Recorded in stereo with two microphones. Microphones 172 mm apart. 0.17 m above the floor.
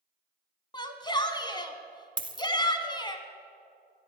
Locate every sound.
0.7 s a shout: 25° left (ahead or behind), 1.2 m
2.2 s a dropped coin: 30° right (ahead or behind), 0.8 m